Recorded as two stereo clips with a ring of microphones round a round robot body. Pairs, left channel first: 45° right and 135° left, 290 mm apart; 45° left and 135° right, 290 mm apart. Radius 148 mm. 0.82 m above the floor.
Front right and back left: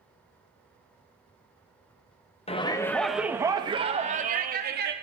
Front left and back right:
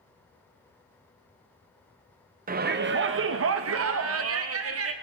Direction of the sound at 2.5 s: 100° right.